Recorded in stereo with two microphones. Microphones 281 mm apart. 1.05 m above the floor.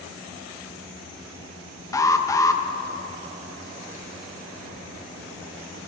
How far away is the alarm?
About 0.6 m.